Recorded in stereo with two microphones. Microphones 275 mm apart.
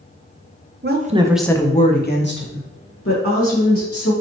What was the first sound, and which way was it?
A woman speaking, 40° right (ahead or behind).